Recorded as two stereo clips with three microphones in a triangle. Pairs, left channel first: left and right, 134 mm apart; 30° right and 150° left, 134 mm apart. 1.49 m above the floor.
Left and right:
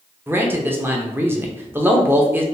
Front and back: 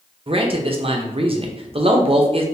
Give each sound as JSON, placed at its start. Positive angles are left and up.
{"t": 0.3, "sound": "a man speaking", "azimuth_deg": -165, "distance_m": 0.7}